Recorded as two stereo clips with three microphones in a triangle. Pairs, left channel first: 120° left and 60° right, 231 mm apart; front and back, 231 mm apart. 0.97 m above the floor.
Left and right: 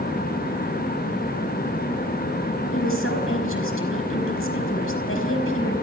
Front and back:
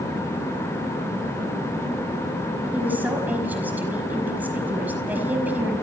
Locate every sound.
2.7 s a woman speaking: 95° left, 5 m